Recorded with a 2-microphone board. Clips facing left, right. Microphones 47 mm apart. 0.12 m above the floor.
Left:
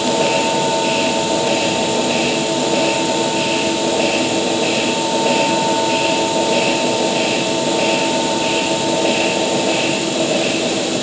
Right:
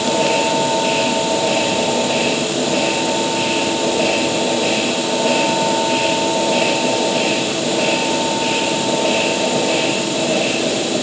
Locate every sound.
Only background noise.